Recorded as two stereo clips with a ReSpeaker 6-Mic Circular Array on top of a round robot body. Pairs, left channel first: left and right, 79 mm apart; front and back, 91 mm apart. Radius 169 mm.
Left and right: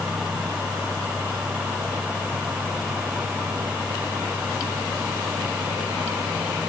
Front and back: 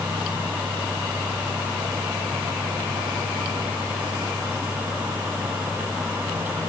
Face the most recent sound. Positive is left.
No sound to turn to.